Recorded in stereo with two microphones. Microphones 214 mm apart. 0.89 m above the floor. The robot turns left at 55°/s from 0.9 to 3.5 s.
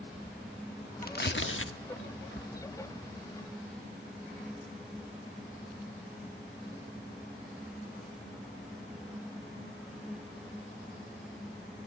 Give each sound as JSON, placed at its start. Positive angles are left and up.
{"t": 1.0, "sound": "tearing paper", "side_deg": 40, "distance_m": 1.3}